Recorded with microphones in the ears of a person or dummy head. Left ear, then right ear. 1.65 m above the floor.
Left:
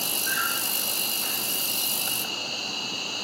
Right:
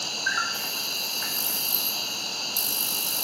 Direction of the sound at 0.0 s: 55° right (ahead or behind).